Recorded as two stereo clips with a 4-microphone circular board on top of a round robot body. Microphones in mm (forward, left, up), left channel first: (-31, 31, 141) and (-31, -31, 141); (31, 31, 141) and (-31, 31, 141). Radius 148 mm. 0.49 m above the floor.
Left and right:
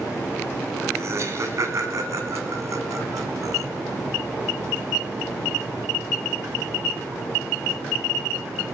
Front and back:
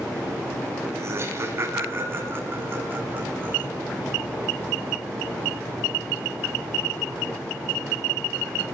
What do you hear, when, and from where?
0.9 s laughter: 130° right, 6.5 m; by 3.7 s 115° right, 5.5 m